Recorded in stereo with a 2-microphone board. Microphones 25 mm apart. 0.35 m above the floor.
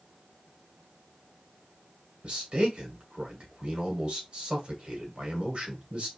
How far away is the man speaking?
About 1.7 m.